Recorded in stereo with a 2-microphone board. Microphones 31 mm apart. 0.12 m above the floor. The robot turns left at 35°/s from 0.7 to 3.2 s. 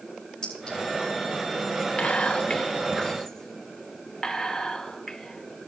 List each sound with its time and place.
0.4 s a clink: 30° left (ahead or behind), 6 m
2.0 s whispering: 40° left (ahead or behind), 2.5 m; by 5.7 s 10° left (ahead or behind), 2.5 m